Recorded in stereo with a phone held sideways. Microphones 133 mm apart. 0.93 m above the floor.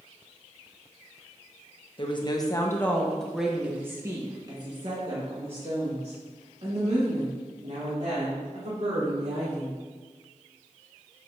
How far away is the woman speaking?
About 1.0 m.